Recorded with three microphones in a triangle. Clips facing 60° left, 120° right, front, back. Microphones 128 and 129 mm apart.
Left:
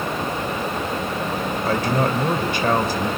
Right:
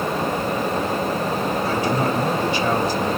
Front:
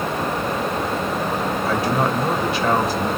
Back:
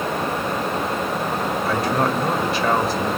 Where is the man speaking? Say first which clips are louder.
Left 3 dB, even; 90° left, 3 m.